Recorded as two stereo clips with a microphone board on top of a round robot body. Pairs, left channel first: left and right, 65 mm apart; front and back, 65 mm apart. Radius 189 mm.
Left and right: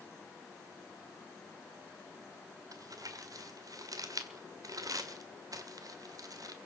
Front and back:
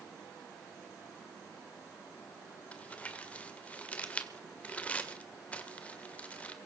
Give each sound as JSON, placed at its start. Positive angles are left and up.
{"t": 2.7, "sound": "crumpling", "azimuth_deg": -70, "distance_m": 2.0}